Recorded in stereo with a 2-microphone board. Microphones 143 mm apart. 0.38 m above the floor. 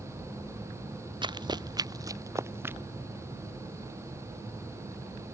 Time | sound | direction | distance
1.2 | running footsteps | 30° right (ahead or behind) | ?